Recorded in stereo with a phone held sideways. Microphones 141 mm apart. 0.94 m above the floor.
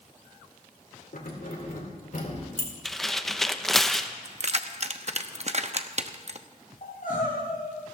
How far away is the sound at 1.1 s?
About 2.5 m.